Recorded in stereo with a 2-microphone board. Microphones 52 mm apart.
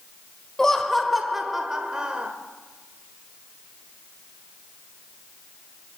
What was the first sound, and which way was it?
Laughter, 10° left (ahead or behind).